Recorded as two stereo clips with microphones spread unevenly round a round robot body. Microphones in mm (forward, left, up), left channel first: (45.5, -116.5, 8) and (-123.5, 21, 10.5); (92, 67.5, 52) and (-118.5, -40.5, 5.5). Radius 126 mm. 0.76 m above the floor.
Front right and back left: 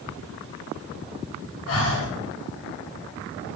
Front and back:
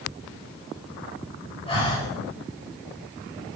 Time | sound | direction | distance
1.7 | breathing | 45° right | 4.5 m